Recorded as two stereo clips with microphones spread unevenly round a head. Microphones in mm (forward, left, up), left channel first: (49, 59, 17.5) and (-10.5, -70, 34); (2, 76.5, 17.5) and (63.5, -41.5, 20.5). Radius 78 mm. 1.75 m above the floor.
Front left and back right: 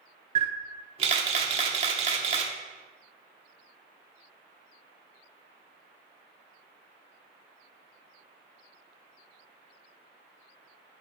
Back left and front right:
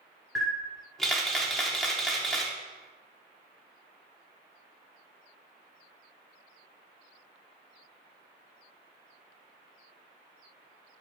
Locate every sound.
0.3 s a camera shutter: 155° right, 0.8 m